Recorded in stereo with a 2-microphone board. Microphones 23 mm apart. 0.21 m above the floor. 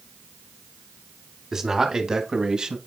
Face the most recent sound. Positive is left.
turn(degrees=-40)  # may be behind; listen again after turning